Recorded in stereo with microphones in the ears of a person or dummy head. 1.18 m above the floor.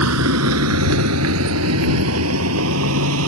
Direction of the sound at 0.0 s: 80° right.